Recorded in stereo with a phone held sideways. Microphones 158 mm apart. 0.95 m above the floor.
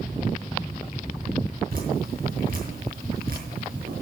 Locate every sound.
1.7 s dripping: 65° right (ahead or behind), 6 m